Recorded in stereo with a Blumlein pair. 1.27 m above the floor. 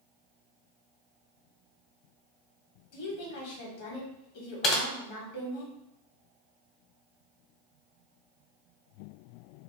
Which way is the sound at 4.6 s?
30° left.